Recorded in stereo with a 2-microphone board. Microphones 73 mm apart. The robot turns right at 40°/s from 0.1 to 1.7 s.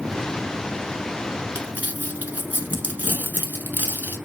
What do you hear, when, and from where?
1.6 s crumpling: 30° right (ahead or behind), 0.8 m; by 4.2 s 25° right (ahead or behind), 0.8 m